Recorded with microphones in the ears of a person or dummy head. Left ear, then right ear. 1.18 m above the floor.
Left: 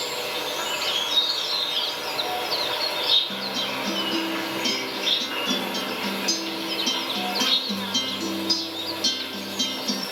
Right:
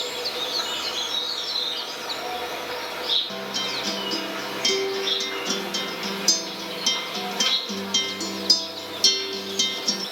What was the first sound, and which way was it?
An insect, 10° left (ahead or behind).